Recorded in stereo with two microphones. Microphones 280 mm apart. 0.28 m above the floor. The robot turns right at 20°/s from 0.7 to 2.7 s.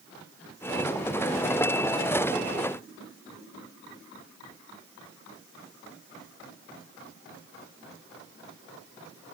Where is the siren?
I don't hear a siren.